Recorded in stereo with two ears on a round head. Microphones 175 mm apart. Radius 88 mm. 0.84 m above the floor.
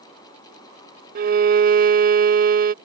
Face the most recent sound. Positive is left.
turn(degrees=-45)  # may be behind; listen again after turning